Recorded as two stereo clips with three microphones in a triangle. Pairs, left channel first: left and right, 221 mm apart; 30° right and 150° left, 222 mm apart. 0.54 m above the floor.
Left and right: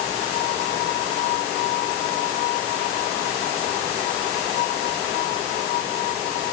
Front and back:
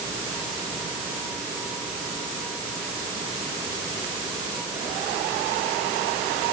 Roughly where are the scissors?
I don't hear scissors.